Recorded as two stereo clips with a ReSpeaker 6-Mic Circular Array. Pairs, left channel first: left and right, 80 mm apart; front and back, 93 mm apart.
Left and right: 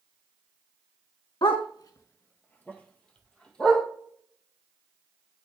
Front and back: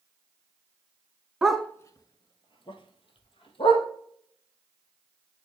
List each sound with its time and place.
1.4 s a dog barking: 100° left, 0.5 m; by 3.9 s 10° left, 2.5 m